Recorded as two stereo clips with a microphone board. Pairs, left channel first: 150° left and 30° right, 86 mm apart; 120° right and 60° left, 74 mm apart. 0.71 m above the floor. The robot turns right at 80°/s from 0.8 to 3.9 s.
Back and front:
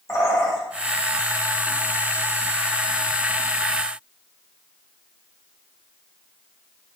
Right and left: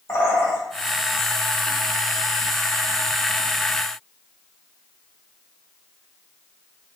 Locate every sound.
0.1 s a bird: 165° right, 0.9 m